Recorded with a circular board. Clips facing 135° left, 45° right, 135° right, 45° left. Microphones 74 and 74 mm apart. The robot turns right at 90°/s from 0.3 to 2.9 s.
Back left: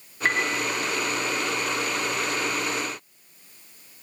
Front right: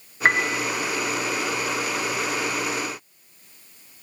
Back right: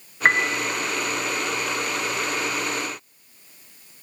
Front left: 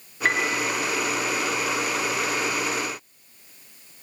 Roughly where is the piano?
Right.